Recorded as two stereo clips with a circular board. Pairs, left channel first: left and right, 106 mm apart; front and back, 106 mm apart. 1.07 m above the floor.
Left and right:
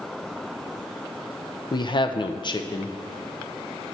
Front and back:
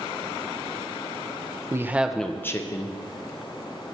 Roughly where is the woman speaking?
Behind left.